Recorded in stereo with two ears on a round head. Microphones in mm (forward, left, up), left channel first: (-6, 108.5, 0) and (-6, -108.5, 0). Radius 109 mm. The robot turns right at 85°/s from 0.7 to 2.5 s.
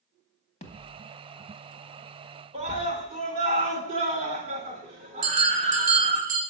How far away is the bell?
About 2 m.